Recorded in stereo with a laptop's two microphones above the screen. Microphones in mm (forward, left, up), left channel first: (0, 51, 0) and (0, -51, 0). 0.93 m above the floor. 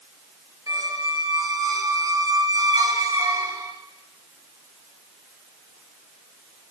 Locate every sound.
0.7 s a squeak: 35° right (ahead or behind), 1.2 m